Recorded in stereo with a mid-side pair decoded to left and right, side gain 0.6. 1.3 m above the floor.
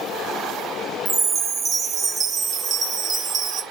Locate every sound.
1.1 s a chime: 30° right, 0.7 m